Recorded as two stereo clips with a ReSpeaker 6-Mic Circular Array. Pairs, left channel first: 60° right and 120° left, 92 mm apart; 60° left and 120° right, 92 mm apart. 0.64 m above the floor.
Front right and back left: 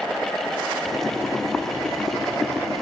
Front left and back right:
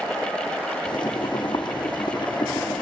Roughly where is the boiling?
Ahead left.